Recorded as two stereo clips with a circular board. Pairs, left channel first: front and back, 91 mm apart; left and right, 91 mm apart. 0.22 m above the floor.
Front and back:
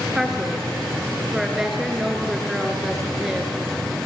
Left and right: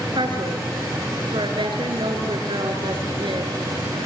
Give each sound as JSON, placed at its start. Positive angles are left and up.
{"t": 0.1, "sound": "a woman speaking", "azimuth_deg": -95, "distance_m": 3.5}